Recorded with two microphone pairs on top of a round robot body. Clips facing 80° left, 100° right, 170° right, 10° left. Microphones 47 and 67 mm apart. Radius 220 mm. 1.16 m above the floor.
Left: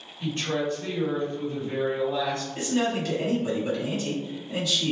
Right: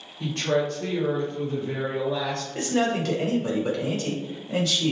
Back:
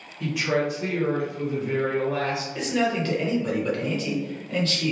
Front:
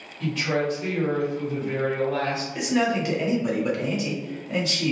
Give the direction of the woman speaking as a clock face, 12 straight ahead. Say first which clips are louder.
Right 3 dB, back 1 dB; 3 o'clock.